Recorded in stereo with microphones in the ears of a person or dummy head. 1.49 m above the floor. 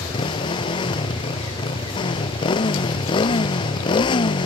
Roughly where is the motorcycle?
Left.